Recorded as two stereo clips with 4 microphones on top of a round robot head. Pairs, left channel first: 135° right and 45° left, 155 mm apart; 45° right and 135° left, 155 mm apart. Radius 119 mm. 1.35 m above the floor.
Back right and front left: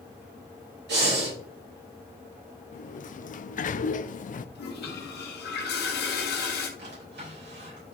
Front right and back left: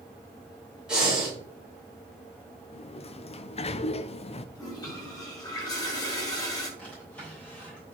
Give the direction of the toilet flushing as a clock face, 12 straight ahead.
4 o'clock.